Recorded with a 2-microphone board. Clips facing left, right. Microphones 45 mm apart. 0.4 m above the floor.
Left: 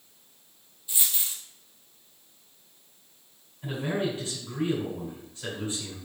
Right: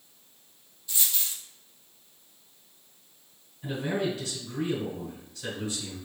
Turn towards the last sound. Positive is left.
turn(degrees=35)  # may be behind; listen again after turning